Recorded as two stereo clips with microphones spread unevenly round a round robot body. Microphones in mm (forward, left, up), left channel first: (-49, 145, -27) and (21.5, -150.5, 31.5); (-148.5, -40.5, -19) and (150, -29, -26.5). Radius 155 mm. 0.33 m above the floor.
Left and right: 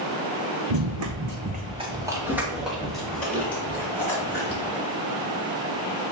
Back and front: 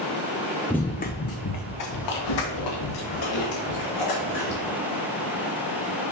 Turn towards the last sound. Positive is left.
turn(degrees=-175)